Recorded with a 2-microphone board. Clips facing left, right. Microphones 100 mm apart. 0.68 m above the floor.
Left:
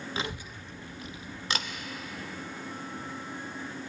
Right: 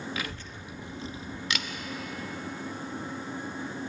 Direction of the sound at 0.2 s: 25° left (ahead or behind).